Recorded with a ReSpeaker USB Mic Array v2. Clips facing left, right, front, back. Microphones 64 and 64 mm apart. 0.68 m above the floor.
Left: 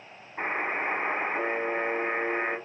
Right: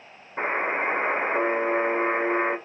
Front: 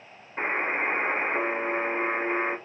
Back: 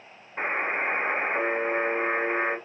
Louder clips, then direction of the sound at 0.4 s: Right 4 dB, even; 85° right.